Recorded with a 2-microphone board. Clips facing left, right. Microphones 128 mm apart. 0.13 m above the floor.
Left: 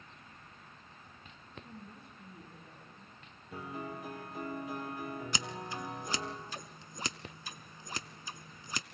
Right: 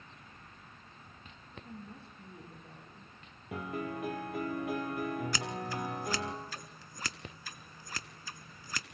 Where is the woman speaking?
35° right (ahead or behind), 7.5 m; by 3.1 s 25° right (ahead or behind), 8 m.